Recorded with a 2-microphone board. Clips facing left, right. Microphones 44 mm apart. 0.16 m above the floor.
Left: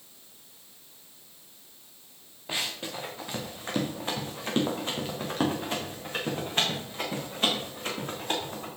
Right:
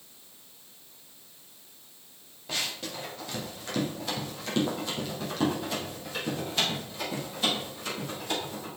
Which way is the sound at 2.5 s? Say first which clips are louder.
Left 1 dB; 20° left (ahead or behind).